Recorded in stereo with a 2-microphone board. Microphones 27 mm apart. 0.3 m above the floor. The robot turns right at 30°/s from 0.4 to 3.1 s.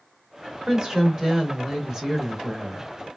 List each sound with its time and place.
0.7 s a woman speaking: 20° right (ahead or behind), 0.8 m; by 2.9 s 10° right (ahead or behind), 0.8 m